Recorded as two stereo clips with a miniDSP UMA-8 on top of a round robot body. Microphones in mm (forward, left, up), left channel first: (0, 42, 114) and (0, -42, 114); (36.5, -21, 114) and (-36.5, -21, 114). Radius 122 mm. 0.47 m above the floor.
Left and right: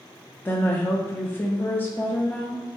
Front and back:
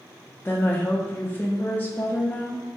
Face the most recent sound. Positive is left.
turn(degrees=45)